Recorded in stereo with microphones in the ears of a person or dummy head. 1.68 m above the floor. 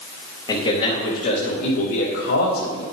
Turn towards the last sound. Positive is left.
turn(degrees=80)